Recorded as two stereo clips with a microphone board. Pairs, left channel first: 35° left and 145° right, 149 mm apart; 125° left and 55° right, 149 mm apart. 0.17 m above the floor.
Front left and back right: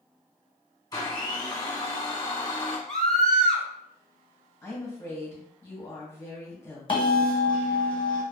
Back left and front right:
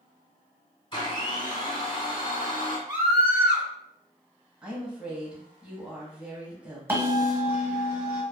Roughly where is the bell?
Ahead.